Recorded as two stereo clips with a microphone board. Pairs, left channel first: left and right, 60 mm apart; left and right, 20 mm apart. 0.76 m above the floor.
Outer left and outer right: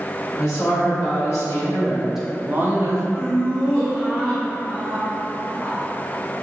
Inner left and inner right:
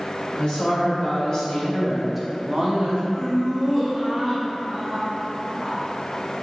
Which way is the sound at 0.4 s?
65° left (ahead or behind).